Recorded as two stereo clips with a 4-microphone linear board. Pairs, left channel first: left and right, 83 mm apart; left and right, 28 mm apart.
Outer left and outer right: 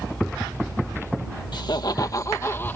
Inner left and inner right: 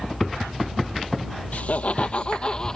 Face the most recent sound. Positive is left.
turn(degrees=20)  # may be behind; listen again after turning